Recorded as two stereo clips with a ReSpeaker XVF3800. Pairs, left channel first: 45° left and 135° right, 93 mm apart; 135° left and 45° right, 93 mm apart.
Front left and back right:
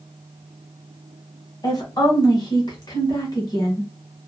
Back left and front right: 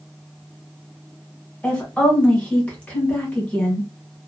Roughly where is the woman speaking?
Ahead left.